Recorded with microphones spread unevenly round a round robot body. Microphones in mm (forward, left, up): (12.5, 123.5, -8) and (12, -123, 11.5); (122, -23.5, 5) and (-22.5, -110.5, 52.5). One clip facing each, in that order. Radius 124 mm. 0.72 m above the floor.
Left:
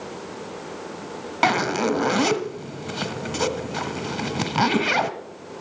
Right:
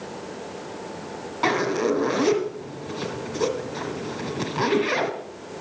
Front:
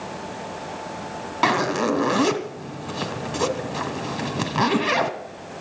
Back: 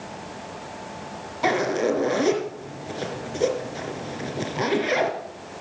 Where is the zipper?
80° left, 1.6 m.